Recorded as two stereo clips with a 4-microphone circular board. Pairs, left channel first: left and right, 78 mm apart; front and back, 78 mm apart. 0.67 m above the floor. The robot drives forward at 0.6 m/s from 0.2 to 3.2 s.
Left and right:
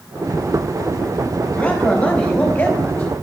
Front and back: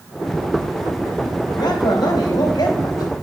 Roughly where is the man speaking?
Ahead.